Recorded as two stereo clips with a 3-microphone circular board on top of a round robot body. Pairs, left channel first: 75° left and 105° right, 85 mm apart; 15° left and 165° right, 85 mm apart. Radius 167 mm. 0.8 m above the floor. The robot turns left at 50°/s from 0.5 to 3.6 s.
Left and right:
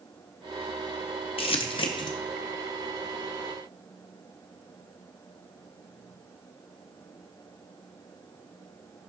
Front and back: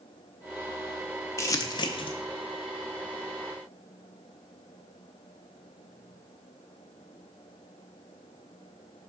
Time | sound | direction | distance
1.4 | crumpling | 70° left | 0.6 m